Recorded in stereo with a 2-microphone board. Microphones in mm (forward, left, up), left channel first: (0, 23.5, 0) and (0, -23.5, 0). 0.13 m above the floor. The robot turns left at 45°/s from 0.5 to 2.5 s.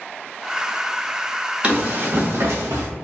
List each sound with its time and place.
1.6 s running footsteps: 30° right (ahead or behind), 1.5 m; by 2.9 s 85° right, 1.4 m